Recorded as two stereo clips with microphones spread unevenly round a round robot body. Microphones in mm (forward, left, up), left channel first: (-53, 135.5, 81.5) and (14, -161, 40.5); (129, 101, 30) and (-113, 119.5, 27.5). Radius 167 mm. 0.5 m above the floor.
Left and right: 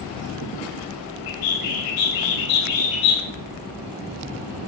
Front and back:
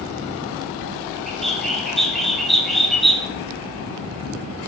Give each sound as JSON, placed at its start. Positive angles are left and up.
{"t": 1.3, "sound": "a bird", "azimuth_deg": 85, "distance_m": 3.0}